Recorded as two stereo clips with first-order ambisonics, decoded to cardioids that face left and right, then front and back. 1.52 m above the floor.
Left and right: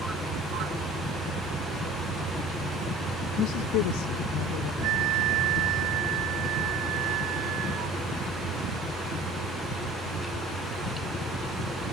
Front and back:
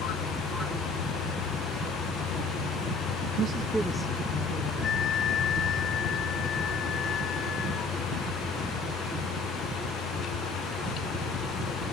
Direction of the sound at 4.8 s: 65° right.